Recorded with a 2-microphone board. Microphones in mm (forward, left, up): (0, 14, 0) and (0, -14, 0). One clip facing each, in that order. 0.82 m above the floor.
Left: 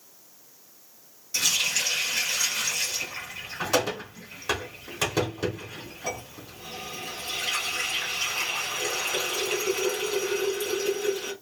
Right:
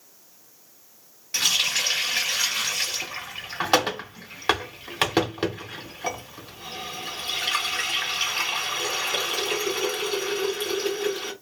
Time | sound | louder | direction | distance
1.3 | a running tap | right 3 dB | 55° right (ahead or behind) | 1.0 m